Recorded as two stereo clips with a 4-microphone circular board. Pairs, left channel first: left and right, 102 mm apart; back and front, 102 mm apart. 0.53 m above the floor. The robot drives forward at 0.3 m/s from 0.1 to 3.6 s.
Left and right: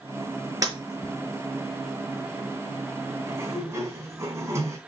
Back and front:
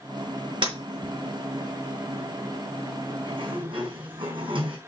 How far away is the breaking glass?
About 4.5 m.